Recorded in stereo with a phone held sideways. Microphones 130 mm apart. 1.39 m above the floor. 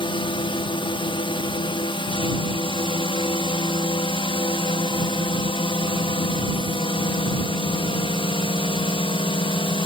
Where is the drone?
40° left (ahead or behind).